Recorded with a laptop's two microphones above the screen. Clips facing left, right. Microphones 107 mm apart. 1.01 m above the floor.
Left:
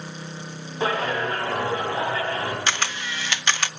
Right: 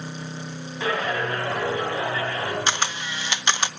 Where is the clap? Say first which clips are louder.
Left 1 dB; 35° left (ahead or behind), 5.5 m.